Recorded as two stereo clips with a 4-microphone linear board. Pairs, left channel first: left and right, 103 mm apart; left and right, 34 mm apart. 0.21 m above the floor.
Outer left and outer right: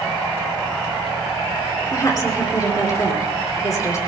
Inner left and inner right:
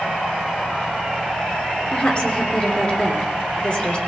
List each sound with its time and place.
1.9 s a woman speaking: 35° left (ahead or behind), 4 m